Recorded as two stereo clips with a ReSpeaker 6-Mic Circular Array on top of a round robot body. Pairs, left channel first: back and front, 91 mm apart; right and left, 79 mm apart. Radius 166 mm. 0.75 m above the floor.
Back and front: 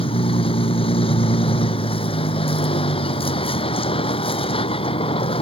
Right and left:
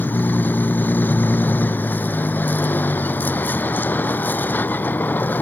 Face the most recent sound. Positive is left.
turn(degrees=-160)